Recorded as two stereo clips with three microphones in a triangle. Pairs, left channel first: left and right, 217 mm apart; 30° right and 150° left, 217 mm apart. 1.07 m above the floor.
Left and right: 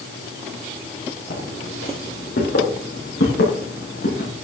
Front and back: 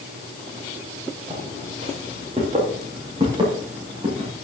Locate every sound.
1.3 s footsteps: 95° left, 5.5 m; by 4.3 s 90° left, 7 m